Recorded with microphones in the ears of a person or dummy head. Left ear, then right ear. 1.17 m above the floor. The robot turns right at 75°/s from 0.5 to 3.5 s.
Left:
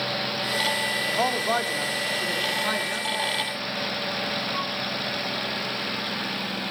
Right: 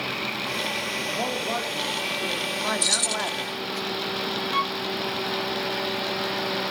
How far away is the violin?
About 1.2 m.